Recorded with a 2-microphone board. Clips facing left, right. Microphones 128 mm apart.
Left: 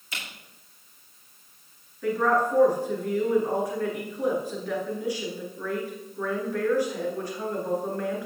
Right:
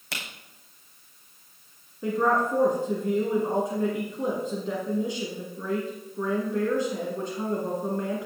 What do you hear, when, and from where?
0.1 s a camera shutter: 80° right, 3 m
2.0 s a woman speaking: 25° right (ahead or behind), 2 m